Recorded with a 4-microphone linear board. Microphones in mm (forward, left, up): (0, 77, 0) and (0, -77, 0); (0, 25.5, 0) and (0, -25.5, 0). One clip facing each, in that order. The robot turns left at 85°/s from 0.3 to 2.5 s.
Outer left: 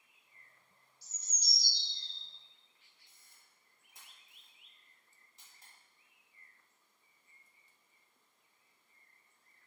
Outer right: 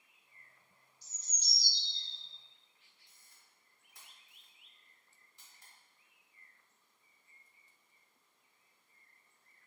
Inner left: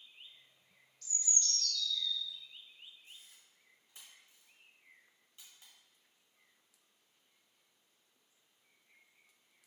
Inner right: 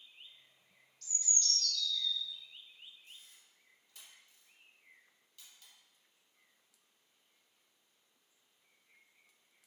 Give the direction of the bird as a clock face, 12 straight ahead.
6 o'clock.